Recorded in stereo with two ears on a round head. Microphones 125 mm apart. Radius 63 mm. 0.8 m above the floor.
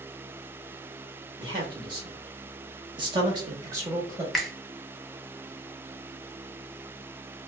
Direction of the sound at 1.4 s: 35° right (ahead or behind).